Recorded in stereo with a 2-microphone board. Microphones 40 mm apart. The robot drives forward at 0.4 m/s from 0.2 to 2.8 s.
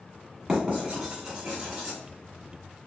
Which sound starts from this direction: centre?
Writing, at 0.5 s.